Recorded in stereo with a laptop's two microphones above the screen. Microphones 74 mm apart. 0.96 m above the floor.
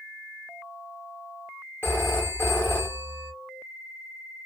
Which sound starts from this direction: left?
A phone ringing, at 1.8 s.